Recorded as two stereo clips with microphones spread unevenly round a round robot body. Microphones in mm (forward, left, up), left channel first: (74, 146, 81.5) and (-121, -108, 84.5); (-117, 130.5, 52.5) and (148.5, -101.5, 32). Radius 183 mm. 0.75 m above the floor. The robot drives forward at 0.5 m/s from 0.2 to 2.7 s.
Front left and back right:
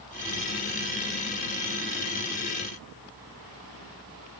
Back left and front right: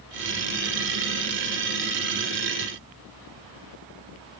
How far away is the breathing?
No breathing in this recording.